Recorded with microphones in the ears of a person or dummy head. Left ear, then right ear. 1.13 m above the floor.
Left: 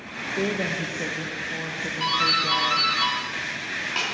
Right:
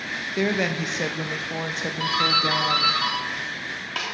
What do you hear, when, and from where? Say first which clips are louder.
0.4 s a woman speaking: right 2 dB; 45° right (ahead or behind), 0.8 m
2.0 s a doorbell: right 1 dB; 10° right (ahead or behind), 2.5 m